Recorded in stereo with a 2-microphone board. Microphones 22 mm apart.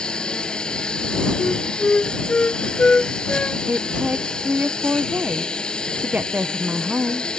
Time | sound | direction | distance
0.0 | a lawn mower | 40° left (ahead or behind) | ?
1.4 | a flute | 55° left (ahead or behind) | ?
3.7 | a woman speaking | 75° right (ahead or behind) | ?